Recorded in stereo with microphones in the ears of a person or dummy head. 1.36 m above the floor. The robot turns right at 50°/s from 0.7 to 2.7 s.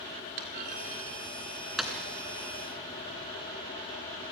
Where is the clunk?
45° right (ahead or behind), 2.5 m; by 1.9 s 5° left (ahead or behind), 2.5 m.